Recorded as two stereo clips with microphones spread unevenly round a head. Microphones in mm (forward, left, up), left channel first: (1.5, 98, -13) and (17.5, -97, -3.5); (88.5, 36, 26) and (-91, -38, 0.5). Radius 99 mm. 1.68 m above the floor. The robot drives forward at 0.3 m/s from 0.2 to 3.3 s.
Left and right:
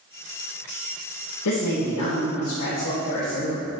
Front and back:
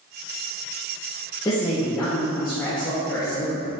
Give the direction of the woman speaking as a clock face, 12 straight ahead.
9 o'clock.